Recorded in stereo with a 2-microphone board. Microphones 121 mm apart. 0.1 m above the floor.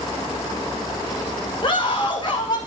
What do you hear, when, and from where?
1.6 s a scream: 40° left (ahead or behind), 6.5 m